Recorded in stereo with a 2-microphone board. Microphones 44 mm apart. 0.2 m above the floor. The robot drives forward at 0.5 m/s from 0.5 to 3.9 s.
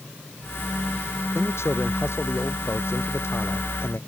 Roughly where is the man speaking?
Left.